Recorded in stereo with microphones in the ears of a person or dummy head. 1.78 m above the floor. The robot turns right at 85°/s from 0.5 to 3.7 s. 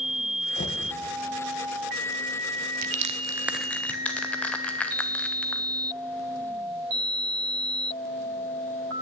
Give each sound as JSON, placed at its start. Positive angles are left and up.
{"t": 0.6, "sound": "knocking", "side_deg": 40, "distance_m": 1.6}
{"t": 2.8, "sound": "crushing", "side_deg": -45, "distance_m": 0.9}